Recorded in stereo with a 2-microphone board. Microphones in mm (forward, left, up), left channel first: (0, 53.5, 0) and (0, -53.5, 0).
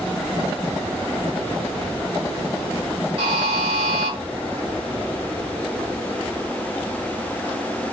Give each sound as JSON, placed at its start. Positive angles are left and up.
{"t": 3.2, "sound": "a buzzer", "side_deg": -50, "distance_m": 1.2}